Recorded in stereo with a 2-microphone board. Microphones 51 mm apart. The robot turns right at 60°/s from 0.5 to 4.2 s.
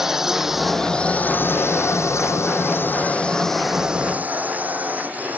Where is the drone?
5° right (ahead or behind); by 5.4 s 35° right (ahead or behind).